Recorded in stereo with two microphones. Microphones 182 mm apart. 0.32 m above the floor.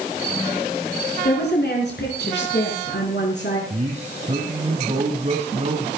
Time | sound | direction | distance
1.2 | a woman speaking | 65° left (ahead or behind) | 4.5 m
3.7 | a man speaking | 40° right (ahead or behind) | 2.5 m